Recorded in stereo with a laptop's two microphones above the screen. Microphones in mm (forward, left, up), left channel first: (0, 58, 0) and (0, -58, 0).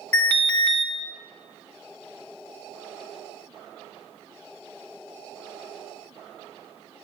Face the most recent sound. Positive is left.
turn(degrees=15)  # may be behind; listen again after turning